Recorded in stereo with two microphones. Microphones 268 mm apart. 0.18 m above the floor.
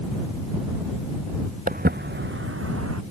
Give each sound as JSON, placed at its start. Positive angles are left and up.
{"t": 1.7, "sound": "footsteps", "side_deg": -35}